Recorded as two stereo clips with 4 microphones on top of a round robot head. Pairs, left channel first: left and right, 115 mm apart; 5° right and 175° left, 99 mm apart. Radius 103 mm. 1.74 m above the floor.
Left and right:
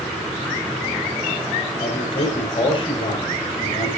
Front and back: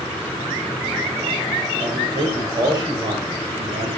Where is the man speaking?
130° left, 6 m.